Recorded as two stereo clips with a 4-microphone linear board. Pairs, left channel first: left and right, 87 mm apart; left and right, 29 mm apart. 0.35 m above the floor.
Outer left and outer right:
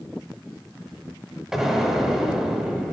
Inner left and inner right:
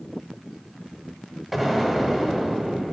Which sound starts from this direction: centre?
An explosion, at 1.5 s.